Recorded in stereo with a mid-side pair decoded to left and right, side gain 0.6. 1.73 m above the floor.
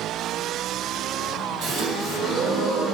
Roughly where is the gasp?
Ahead right.